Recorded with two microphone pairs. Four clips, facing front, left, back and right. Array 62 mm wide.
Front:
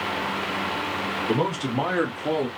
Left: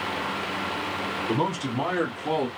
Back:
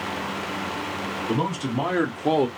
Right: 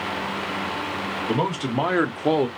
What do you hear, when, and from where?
1.3 s a man speaking: 65° right, 1.6 m; by 2.5 s 155° right, 0.5 m